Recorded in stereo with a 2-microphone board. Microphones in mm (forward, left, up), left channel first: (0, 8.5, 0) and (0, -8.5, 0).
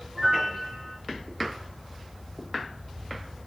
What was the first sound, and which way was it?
A piano, 30° right (ahead or behind).